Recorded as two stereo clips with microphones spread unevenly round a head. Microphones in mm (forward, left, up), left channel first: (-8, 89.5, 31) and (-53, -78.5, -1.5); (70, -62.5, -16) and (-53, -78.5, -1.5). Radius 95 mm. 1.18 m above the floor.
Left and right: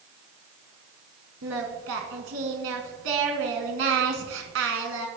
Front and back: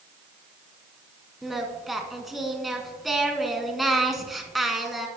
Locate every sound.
1.4 s singing: 85° right, 1.9 m